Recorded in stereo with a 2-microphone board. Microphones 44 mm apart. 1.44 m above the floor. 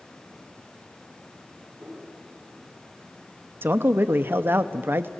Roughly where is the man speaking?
Right.